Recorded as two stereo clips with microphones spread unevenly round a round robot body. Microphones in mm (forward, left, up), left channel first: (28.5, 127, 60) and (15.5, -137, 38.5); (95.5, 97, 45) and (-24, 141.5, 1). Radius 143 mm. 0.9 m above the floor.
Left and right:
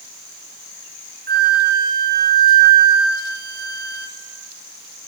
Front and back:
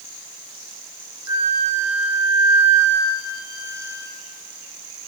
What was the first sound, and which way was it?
A flute, 140° right.